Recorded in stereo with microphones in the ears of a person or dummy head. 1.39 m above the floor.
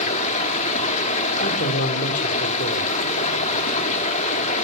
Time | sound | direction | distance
0.0 | running water | 40° left (ahead or behind) | 2.5 m
1.4 | a man speaking | 55° left (ahead or behind) | 4 m